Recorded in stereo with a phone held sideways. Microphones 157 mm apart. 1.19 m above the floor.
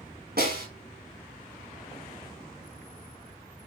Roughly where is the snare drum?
Right.